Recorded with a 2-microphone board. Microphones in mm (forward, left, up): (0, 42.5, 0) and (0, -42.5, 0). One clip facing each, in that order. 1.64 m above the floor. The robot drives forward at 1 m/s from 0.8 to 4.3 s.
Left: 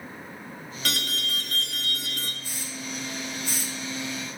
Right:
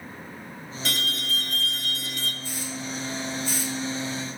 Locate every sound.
0.8 s an alarm: 60° left (ahead or behind), 1.4 m; by 2.3 s 50° left (ahead or behind), 1.6 m
2.4 s a hiss: 80° left, 4.5 m; by 3.7 s 75° left (ahead or behind), 5 m